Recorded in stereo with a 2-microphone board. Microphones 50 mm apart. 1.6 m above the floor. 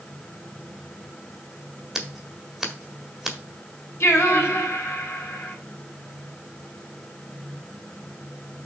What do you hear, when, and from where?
1.9 s scissors: 5° right (ahead or behind), 1.7 m
4.0 s singing: 60° left (ahead or behind), 3.5 m